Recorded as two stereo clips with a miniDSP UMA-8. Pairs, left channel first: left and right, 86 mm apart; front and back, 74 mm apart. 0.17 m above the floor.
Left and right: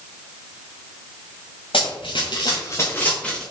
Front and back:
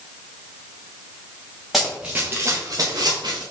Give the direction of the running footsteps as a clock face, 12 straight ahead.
9 o'clock.